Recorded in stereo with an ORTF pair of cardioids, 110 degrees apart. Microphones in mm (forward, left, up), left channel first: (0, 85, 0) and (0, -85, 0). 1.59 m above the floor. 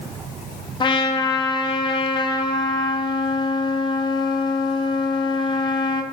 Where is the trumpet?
25° left, 0.6 m.